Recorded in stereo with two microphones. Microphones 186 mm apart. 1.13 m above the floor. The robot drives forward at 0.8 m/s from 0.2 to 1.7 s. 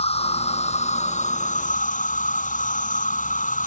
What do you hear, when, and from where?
0.0 s an insect: 35° left (ahead or behind); by 3.7 s 45° left (ahead or behind)